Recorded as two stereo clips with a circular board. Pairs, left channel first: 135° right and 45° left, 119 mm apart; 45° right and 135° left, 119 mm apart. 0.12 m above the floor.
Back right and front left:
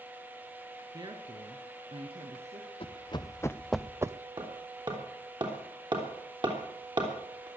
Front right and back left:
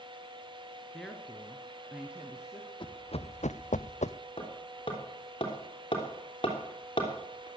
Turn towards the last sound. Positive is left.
turn(degrees=0)